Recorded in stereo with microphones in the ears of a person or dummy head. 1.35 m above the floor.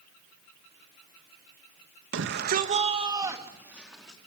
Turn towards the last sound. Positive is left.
turn(degrees=0)  # may be behind; listen again after turning